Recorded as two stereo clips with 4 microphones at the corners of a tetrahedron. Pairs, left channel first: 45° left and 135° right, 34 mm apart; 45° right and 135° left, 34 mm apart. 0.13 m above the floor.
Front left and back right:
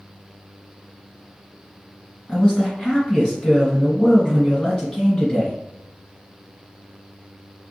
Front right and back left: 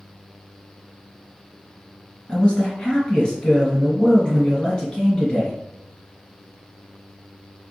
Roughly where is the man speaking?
Ahead.